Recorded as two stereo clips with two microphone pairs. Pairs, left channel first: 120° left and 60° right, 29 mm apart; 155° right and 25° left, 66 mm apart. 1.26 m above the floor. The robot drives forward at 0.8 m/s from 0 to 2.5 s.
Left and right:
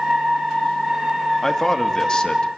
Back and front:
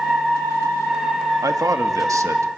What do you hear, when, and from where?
1.4 s a man speaking: 50° left, 2.5 m; by 2.5 s 65° left, 1.9 m